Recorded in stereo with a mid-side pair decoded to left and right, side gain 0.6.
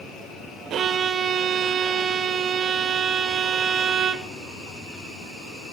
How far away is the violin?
About 0.7 m.